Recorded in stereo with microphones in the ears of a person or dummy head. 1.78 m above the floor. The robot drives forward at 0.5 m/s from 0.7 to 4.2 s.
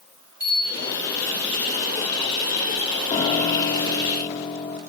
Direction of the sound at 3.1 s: 25° left (ahead or behind).